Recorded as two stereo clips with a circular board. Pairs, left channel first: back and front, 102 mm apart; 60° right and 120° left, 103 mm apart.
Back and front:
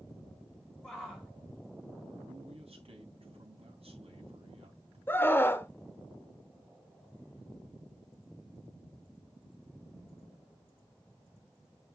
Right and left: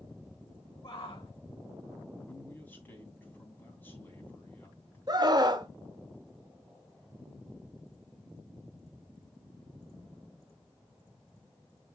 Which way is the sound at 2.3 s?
10° left.